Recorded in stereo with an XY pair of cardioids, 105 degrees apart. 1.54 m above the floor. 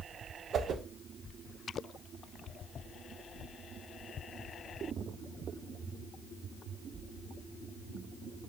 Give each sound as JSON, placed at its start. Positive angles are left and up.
{"t": 0.5, "sound": "a whoosh", "azimuth_deg": -55, "distance_m": 0.6}